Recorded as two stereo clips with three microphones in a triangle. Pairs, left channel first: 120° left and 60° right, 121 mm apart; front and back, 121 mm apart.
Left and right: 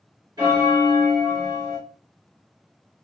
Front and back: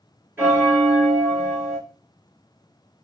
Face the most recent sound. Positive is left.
turn(degrees=-110)